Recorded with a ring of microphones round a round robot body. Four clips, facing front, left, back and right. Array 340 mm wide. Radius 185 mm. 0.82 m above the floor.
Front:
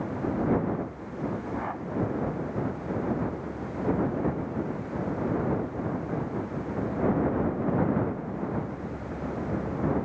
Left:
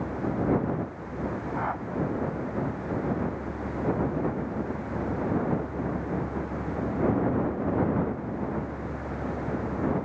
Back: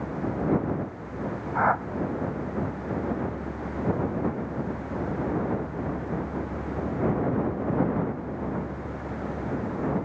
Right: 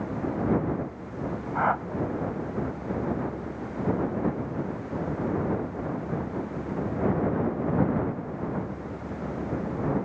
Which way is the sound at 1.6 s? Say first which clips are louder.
Right 8 dB, back 9 dB; 150° right.